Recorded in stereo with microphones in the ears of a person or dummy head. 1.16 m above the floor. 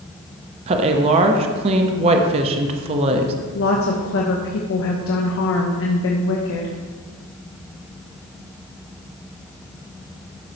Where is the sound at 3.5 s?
70° left (ahead or behind), 1.1 m.